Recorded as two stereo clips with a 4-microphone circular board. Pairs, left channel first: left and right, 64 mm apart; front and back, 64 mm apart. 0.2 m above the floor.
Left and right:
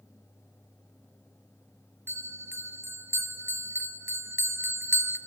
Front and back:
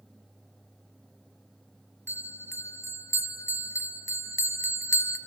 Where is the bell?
40° right, 1.2 m.